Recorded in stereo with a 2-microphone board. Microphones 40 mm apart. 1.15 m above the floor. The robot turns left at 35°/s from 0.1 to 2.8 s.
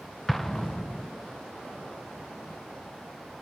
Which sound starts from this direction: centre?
An explosion, at 0.3 s.